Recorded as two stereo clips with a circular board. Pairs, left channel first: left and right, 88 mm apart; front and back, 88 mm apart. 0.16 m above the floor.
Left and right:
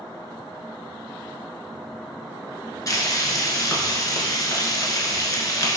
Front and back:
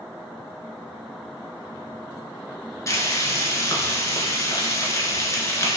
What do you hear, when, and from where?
2.9 s frying: 50° left, 1.0 m